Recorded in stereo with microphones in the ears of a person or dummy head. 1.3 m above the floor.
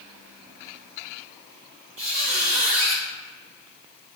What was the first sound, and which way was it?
A squeak, 35° right (ahead or behind).